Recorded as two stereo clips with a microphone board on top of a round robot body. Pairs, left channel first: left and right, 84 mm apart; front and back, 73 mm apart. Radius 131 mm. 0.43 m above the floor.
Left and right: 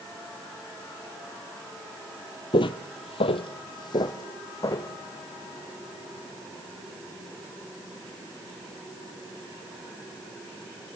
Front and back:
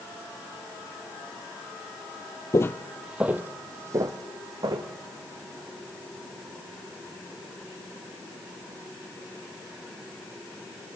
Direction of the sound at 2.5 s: 55° left.